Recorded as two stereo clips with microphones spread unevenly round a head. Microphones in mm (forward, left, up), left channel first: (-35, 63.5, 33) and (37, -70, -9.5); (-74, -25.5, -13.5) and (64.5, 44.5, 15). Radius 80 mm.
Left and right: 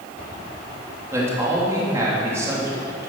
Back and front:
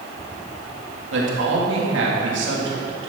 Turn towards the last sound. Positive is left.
turn(degrees=15)